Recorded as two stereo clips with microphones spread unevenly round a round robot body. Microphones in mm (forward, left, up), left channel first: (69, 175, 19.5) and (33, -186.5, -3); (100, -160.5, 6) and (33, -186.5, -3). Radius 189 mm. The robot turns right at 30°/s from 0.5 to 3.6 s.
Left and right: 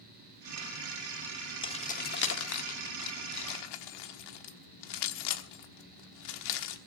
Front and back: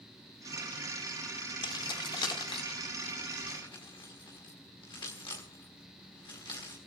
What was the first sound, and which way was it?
Keys jangling, 5° left.